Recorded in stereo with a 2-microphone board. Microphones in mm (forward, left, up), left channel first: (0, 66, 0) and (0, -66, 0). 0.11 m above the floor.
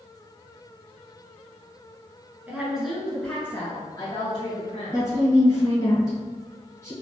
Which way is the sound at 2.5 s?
15° right (ahead or behind).